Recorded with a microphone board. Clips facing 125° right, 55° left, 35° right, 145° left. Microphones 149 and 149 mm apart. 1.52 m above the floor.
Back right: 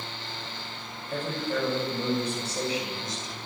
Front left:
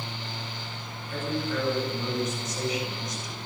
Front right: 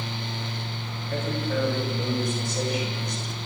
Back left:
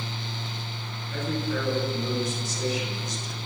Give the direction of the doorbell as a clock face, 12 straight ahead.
I don't hear a doorbell.